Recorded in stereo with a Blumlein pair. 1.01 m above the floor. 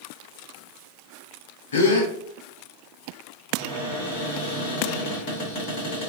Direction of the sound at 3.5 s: 40° left.